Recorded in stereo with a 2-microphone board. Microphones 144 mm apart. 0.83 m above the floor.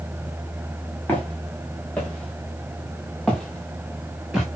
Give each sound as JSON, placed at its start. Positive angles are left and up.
{"t": 1.1, "sound": "footsteps", "side_deg": 10, "distance_m": 5.5}